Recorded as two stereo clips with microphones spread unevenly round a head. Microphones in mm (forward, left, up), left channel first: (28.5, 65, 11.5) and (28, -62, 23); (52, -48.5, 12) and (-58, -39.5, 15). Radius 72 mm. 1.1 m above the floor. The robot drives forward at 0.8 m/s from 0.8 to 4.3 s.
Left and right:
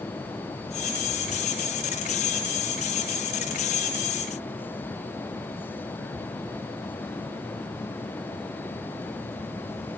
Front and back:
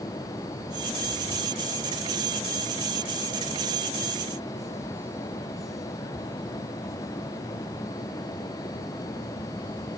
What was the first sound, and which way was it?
Only background noise.